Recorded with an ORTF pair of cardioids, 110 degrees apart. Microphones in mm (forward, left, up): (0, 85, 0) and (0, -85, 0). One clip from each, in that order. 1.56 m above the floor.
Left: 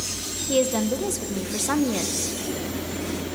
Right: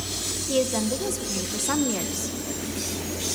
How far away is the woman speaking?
About 1.6 m.